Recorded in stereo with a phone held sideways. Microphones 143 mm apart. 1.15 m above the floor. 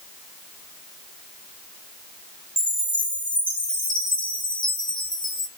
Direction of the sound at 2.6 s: 70° left (ahead or behind).